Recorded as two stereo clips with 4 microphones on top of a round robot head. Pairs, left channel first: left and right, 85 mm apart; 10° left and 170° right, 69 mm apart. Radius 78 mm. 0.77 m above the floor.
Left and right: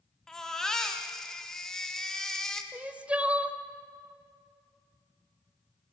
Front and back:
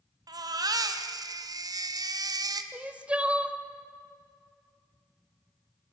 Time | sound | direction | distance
0.3 | a baby crying | 175° left | 1.3 m
2.7 | crying | 135° right | 1.0 m